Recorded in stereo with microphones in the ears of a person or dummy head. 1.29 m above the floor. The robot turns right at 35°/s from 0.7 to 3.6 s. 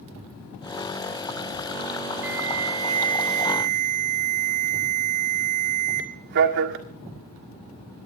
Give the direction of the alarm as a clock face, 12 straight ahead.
6 o'clock.